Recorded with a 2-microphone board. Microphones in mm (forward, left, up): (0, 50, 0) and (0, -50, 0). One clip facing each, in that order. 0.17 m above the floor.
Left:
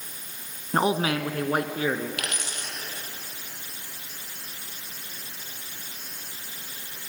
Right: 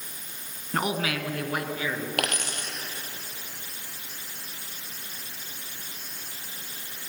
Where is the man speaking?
30° left (ahead or behind), 1.4 m; by 2.1 s 45° left (ahead or behind), 2.5 m.